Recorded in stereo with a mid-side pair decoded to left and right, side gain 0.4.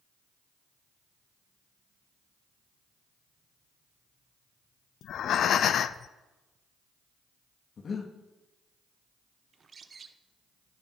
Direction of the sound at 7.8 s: 50° left.